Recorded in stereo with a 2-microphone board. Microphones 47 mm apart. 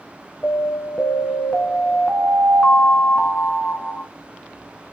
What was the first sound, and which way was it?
An alarm, 15° left (ahead or behind).